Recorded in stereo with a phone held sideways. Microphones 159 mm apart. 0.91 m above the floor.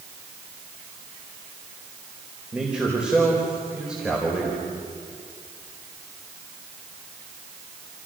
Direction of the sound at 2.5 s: 5° right (ahead or behind).